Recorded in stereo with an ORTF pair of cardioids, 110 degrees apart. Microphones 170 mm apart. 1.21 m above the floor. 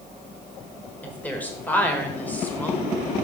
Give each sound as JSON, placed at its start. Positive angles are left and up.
{"t": 1.0, "sound": "a woman speaking", "azimuth_deg": 10, "distance_m": 1.4}